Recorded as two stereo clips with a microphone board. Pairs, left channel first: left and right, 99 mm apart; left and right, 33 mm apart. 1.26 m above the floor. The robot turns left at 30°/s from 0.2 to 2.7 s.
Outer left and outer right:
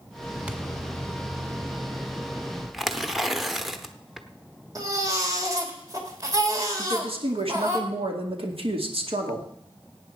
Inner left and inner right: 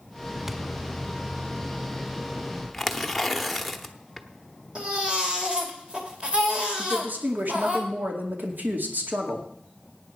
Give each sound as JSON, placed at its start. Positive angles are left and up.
{"t": 0.5, "sound": "a thud", "side_deg": -15, "distance_m": 1.2}
{"t": 2.7, "sound": "tearing paper", "side_deg": 0, "distance_m": 0.9}
{"t": 4.8, "sound": "a baby crying", "side_deg": -35, "distance_m": 2.5}
{"t": 6.8, "sound": "a woman speaking", "side_deg": -75, "distance_m": 2.5}